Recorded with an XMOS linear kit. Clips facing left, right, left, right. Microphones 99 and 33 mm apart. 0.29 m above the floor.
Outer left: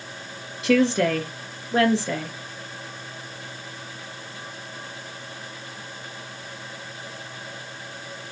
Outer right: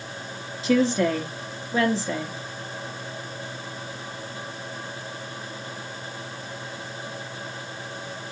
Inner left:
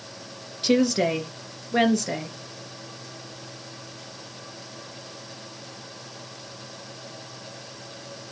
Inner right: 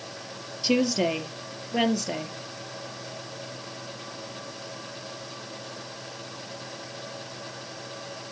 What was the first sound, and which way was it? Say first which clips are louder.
A woman speaking: outer left 1 dB, inner left 3 dB; 70° left (ahead or behind).